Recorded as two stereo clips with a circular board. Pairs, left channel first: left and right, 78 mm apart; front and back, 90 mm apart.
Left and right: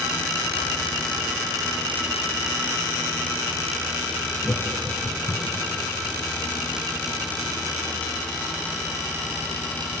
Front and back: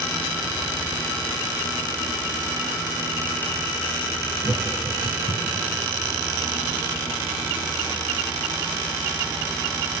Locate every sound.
4.4 s laughter: 165° left, 3 m; by 5.7 s straight behind, 1.7 m